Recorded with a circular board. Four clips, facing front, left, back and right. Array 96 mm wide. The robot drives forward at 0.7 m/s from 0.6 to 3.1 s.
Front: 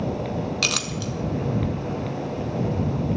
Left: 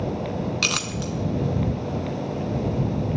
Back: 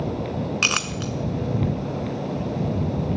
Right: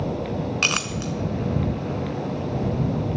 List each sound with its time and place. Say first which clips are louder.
0.6 s a clink: right 1 dB, back 2 dB; 145° right, 0.7 m; by 1.1 s 165° right, 0.9 m